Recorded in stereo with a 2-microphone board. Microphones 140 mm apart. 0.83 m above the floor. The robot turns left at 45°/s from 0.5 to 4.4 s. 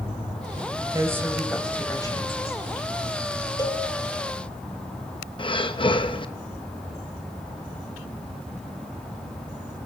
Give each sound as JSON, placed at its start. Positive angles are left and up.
{"t": 0.9, "sound": "a woman speaking", "azimuth_deg": -155, "distance_m": 4.0}
{"t": 3.6, "sound": "a cowbell", "side_deg": 30, "distance_m": 2.5}
{"t": 5.4, "sound": "breathing", "side_deg": 35, "distance_m": 0.9}